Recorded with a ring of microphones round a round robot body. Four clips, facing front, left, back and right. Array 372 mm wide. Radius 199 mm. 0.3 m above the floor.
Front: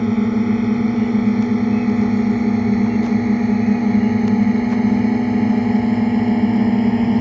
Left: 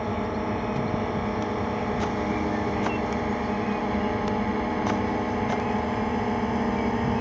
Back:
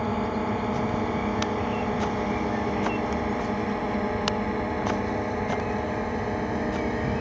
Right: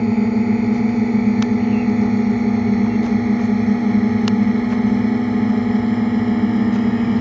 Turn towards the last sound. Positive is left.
turn(degrees=-35)